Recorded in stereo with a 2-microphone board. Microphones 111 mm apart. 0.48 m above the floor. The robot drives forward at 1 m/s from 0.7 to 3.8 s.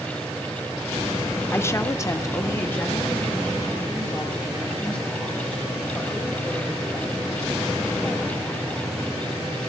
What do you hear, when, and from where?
1.5 s a woman speaking: 20° left (ahead or behind), 0.9 m; by 8.4 s 10° left (ahead or behind), 1.9 m